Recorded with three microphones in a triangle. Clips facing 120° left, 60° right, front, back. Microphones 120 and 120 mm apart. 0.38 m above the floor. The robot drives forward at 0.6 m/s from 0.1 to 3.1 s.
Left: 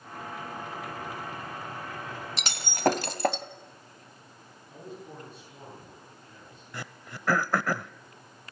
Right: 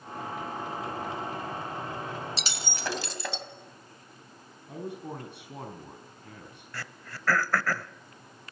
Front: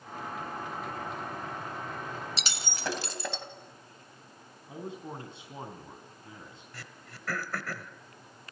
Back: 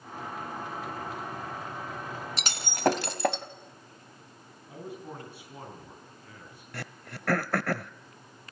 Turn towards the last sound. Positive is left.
turn(degrees=-170)